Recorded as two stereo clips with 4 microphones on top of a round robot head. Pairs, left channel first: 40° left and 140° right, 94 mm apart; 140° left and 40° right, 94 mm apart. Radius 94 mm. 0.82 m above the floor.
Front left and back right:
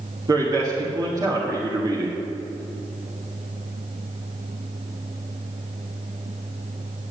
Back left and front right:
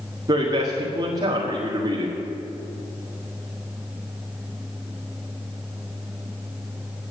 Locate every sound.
0.3 s a man speaking: 90° right, 1.7 m